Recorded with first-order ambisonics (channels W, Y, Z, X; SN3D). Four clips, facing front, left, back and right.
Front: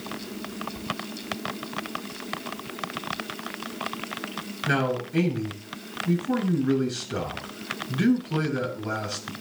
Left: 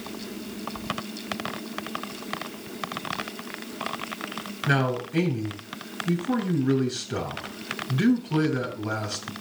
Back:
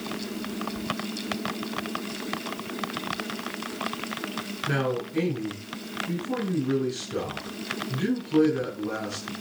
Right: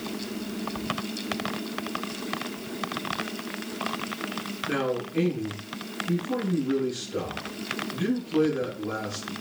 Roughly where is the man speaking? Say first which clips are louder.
Left 4 dB, front 3 dB; ahead left.